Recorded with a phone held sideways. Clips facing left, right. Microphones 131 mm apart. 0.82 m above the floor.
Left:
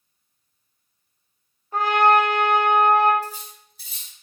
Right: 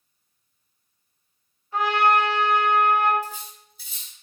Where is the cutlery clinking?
85° left, 1.8 m.